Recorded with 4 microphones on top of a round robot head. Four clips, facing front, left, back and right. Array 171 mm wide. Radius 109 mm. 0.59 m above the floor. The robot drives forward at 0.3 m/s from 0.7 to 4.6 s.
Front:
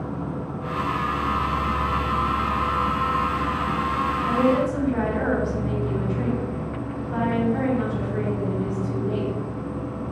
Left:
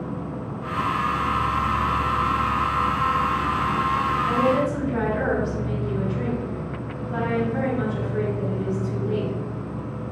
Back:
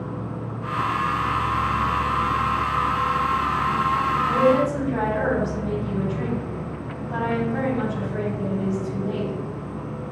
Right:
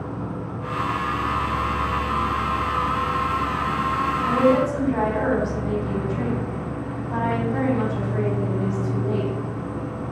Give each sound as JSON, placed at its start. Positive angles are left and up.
{"t": 0.0, "sound": "an insect", "azimuth_deg": -50, "distance_m": 1.9}
{"t": 4.2, "sound": "a woman speaking", "azimuth_deg": -120, "distance_m": 5.0}